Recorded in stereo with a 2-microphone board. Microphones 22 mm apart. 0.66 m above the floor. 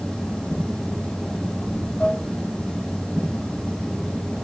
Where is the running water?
80° left, 7 m.